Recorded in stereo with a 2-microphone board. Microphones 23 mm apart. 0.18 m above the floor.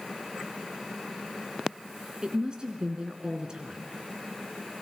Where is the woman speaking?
40° right (ahead or behind), 2.5 m.